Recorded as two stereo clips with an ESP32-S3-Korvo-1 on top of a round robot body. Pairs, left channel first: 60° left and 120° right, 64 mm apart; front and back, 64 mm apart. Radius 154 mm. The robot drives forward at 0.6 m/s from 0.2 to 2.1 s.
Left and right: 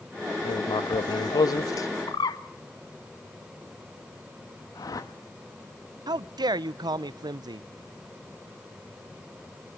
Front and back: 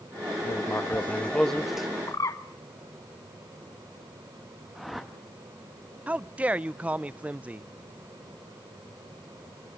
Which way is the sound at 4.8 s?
90° left.